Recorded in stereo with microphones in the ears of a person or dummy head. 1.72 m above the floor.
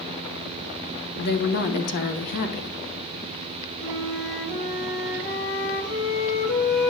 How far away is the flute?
About 2 m.